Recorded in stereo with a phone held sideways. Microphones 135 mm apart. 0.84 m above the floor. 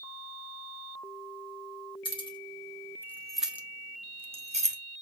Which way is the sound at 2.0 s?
40° left (ahead or behind).